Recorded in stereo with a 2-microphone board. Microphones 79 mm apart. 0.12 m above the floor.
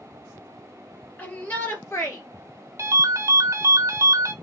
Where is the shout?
25° left (ahead or behind), 3 m; by 2.2 s 35° left (ahead or behind), 2.5 m.